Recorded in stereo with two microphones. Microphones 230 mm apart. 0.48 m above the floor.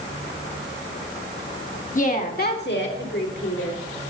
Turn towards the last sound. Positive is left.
turn(degrees=60)  # may be behind; listen again after turning